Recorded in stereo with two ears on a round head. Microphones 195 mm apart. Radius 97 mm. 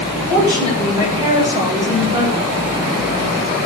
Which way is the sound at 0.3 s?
20° right (ahead or behind).